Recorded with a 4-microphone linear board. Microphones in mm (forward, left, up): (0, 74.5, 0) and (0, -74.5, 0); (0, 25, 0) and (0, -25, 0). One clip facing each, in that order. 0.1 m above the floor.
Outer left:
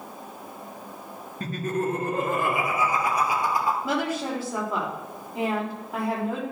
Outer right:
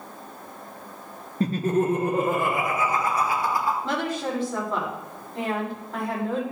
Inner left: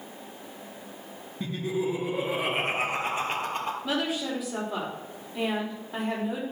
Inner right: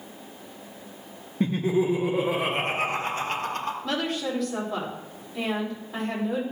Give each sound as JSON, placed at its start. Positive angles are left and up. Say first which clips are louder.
{"t": 1.4, "sound": "laughter", "louder": "outer right 5 dB, inner right 6 dB", "side_deg": -35, "distance_m": 1.5}
{"t": 3.8, "sound": "a woman speaking", "louder": "even, inner right 1 dB", "side_deg": 10, "distance_m": 5.0}